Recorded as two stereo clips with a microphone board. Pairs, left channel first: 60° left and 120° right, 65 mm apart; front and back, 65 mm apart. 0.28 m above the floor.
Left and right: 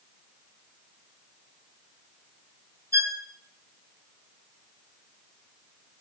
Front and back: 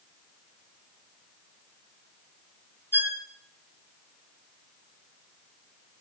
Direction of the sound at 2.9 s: 135° right.